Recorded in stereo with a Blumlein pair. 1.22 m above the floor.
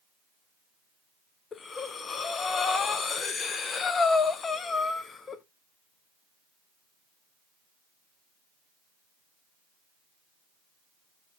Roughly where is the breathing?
Ahead.